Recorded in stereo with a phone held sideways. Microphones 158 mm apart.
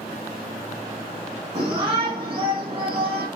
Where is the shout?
35° right (ahead or behind), 5 m.